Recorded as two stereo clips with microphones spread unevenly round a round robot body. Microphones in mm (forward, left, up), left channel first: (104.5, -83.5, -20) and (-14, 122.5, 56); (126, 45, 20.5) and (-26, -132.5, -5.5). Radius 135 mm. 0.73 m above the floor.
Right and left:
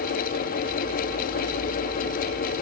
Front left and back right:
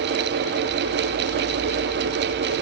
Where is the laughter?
No laughter in this recording.